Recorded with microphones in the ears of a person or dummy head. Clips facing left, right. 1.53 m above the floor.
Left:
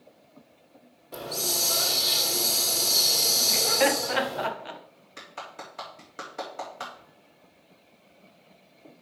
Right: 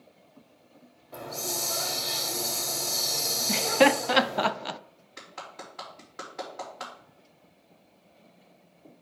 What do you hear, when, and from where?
1.1 s a hiss: 45° left (ahead or behind), 1.3 m
3.5 s laughter: 60° right (ahead or behind), 0.5 m
5.2 s a clap: 45° left (ahead or behind), 3.5 m